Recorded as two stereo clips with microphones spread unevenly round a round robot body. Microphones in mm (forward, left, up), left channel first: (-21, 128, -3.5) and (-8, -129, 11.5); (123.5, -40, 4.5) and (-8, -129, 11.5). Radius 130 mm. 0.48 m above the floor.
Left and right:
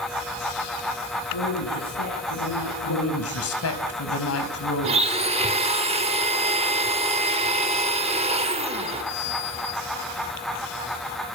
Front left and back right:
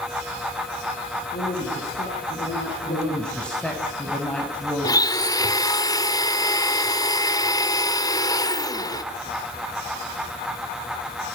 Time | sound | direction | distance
1.3 | a woman speaking | 90° left | 8.5 m
2.9 | a woman speaking | 120° left | 4 m
4.8 | a blender | 25° right | 1.9 m